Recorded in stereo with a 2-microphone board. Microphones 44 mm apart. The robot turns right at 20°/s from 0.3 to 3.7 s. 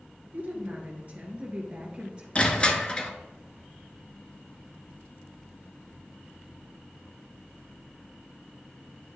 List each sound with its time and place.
0.3 s a woman speaking: 65° right, 1.5 m; by 2.2 s 25° right, 1.5 m
2.4 s crushing: 30° left (ahead or behind), 0.7 m; by 3.1 s 20° left (ahead or behind), 0.7 m